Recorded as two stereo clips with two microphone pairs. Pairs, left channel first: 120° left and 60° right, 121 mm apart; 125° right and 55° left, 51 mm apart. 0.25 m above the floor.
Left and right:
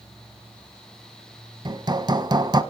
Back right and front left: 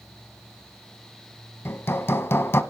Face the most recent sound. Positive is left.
turn(degrees=-105)